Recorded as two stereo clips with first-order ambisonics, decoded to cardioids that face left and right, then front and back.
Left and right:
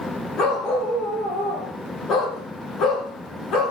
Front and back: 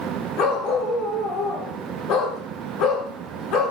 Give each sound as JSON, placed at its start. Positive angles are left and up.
{"t": 0.4, "sound": "a dog barking", "azimuth_deg": 40, "distance_m": 6.5}